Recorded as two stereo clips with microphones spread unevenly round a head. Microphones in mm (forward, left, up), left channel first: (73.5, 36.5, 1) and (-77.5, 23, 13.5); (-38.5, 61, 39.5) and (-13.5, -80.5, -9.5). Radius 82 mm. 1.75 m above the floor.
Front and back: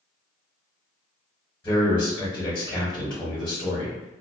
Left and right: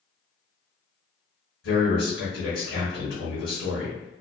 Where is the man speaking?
80° left, 1.1 m.